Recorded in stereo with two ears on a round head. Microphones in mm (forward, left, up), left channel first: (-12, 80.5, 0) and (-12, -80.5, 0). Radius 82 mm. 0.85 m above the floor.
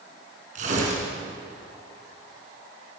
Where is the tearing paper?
40° right (ahead or behind), 6 m.